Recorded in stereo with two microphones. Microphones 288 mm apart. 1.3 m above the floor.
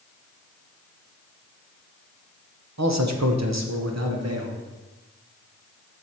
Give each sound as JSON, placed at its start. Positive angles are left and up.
{"t": 2.8, "sound": "a man speaking", "side_deg": -65, "distance_m": 1.0}